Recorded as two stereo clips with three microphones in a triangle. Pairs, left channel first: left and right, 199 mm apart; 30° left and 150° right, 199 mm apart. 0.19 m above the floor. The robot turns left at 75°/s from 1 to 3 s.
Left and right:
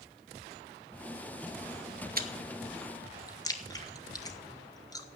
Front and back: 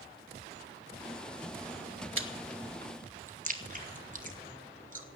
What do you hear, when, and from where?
2.2 s chewing: 135° right, 1.1 m; by 5.0 s 165° left, 1.1 m